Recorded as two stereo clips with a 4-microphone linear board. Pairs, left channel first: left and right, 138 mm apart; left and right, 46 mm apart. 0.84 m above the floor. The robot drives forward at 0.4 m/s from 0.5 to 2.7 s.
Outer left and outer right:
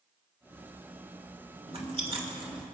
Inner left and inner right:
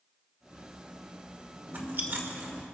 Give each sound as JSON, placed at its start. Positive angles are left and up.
{"t": 1.7, "sound": "chewing", "side_deg": -45, "distance_m": 1.8}